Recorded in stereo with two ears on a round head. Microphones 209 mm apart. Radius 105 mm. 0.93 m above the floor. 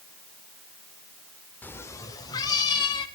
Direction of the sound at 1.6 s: 5° left (ahead or behind).